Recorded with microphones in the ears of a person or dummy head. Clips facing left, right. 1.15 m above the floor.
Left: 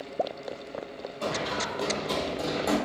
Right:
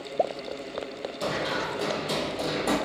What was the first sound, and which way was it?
Running footsteps, 25° right (ahead or behind).